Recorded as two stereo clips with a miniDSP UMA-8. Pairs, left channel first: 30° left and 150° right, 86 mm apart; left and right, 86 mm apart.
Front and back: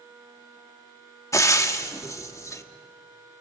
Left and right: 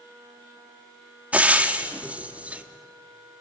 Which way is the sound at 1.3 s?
20° right.